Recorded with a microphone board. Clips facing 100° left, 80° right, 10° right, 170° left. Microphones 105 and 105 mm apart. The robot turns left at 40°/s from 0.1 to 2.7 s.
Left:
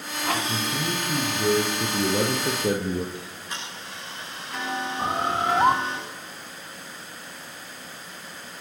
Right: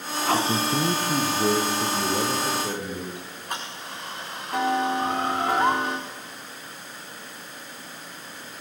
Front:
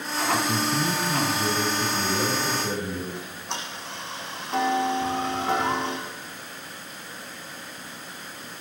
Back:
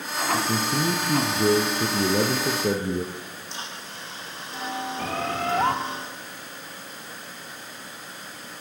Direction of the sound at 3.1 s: 35° right.